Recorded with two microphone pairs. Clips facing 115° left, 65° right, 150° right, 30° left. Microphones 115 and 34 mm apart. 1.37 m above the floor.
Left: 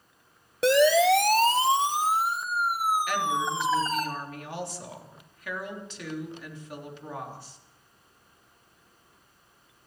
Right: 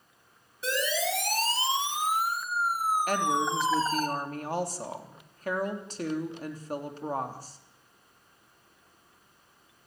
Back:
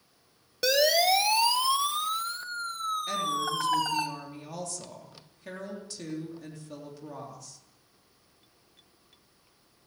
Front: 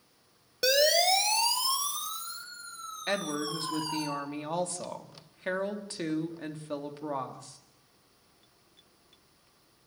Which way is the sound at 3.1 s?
15° right.